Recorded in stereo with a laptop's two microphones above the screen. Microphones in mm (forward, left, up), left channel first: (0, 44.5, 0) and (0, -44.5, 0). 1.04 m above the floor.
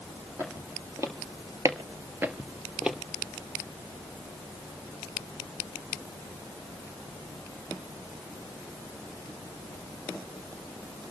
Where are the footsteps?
30° right (ahead or behind), 2.5 m; by 3.0 s 5° right (ahead or behind), 1.7 m.